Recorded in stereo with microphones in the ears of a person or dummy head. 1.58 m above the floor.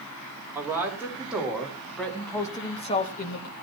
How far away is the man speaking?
About 5 m.